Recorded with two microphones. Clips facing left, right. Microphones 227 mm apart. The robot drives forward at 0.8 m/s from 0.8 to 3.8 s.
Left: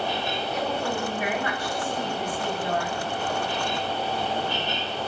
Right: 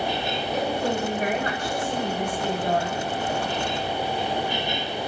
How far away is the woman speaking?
About 5 m.